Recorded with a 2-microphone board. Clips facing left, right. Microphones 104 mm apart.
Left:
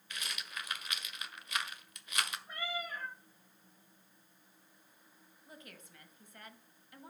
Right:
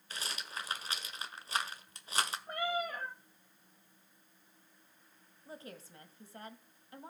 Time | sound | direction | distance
0.1 | a rattle | 35° right (ahead or behind) | 1.3 m
2.5 | a cat meowing | 55° right (ahead or behind) | 2 m
5.5 | a woman speaking | 30° right (ahead or behind) | 1.8 m